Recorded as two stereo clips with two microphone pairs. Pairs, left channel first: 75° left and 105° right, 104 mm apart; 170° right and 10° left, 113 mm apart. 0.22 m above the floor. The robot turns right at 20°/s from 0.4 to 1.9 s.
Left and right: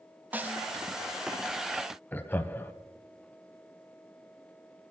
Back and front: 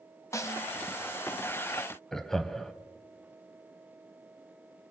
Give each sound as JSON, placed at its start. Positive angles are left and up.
{"t": 0.3, "sound": "a snare drum", "azimuth_deg": -155, "distance_m": 0.7}
{"t": 2.1, "sound": "laughter", "azimuth_deg": 105, "distance_m": 1.0}